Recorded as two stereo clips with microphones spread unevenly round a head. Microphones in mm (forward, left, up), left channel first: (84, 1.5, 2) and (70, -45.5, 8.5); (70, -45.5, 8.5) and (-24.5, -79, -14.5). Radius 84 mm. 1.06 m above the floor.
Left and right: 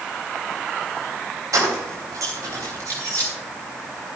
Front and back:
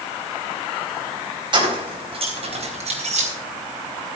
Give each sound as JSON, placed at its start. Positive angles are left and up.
{"t": 1.5, "sound": "keys jangling", "azimuth_deg": -120, "distance_m": 3.5}